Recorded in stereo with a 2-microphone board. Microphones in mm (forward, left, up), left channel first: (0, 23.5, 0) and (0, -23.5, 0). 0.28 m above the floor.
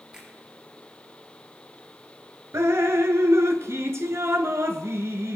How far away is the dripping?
About 1.0 m.